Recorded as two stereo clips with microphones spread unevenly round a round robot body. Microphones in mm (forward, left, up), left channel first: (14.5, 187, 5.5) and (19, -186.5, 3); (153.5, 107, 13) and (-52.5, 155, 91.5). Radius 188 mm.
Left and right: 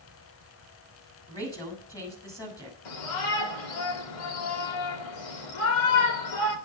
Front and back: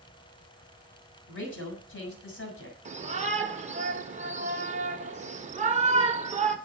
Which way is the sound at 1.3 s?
10° left.